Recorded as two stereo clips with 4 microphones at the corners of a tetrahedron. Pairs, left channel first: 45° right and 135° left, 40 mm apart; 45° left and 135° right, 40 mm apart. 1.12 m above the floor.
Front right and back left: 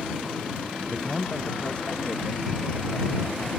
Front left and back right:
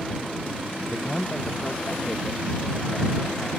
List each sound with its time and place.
0.9 s a man speaking: 5° left; by 3.5 s 10° right